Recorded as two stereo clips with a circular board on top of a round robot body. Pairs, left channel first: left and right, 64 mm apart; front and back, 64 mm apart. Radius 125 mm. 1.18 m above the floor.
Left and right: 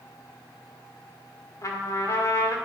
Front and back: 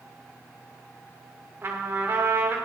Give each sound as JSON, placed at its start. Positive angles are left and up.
{"t": 1.6, "sound": "a trumpet", "azimuth_deg": 120, "distance_m": 1.7}